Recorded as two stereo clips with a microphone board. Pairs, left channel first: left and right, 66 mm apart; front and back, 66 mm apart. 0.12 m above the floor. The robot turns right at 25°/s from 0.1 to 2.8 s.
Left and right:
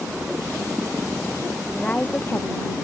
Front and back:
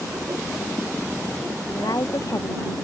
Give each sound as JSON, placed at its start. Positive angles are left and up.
{"t": 1.7, "sound": "a woman speaking", "azimuth_deg": 20}